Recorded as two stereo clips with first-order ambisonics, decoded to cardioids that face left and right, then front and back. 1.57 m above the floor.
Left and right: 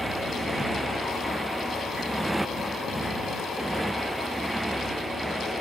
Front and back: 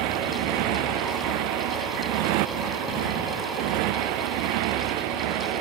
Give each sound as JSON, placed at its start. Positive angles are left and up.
{"t": 0.0, "sound": "a motorcycle", "azimuth_deg": -175}